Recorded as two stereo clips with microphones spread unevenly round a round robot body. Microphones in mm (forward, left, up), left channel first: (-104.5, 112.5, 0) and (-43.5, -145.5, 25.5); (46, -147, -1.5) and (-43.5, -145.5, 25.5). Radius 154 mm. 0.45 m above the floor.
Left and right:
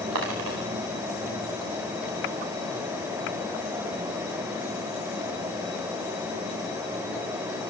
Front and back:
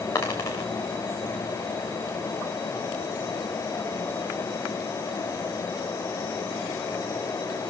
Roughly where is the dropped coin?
Ahead right.